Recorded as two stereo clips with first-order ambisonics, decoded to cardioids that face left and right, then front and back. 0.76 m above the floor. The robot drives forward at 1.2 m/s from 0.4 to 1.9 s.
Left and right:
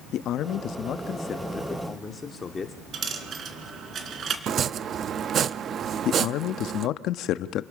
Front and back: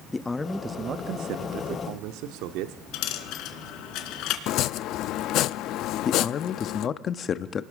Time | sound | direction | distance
0.1 | a man speaking | 70° left | 0.8 m
2.9 | a dropped coin | 30° right | 2.5 m
4.5 | chopping | 35° right | 0.6 m
6.0 | a man speaking | 55° left | 0.9 m